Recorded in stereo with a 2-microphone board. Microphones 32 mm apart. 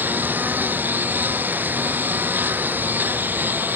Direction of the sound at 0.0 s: 65° right (ahead or behind).